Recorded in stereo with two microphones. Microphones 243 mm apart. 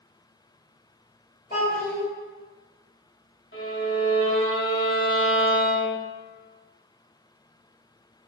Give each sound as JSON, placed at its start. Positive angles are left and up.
{"t": 1.5, "sound": "a child speaking", "side_deg": 35, "distance_m": 1.3}
{"t": 3.5, "sound": "a violin", "side_deg": 55, "distance_m": 0.7}